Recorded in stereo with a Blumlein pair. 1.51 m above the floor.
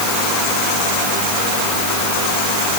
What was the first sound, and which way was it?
Only background noise.